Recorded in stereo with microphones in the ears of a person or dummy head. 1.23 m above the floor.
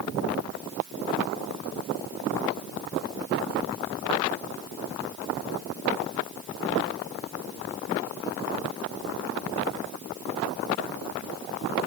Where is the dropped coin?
I don't hear a dropped coin.